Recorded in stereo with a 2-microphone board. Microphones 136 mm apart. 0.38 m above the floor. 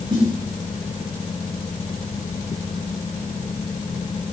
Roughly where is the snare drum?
Right.